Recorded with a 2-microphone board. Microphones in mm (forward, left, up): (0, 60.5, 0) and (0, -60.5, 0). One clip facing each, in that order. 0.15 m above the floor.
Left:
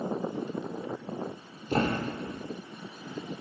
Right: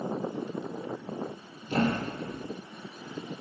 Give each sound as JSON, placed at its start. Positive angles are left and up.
{"t": 1.7, "sound": "a thud", "side_deg": 40, "distance_m": 1.7}